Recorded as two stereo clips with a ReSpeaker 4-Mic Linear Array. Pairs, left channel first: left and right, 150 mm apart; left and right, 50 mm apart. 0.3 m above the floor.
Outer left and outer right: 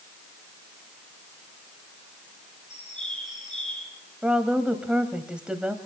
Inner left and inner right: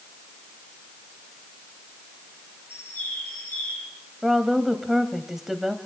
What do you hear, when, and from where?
2.7 s a bird: 50° left (ahead or behind), 5 m
4.2 s a woman speaking: 5° right (ahead or behind), 1.6 m